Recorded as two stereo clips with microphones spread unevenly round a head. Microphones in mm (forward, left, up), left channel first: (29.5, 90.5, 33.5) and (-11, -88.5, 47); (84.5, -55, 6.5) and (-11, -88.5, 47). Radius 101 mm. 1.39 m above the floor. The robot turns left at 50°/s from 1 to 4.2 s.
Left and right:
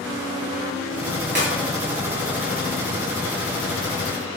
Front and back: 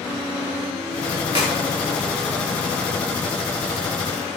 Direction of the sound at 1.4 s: 130° right.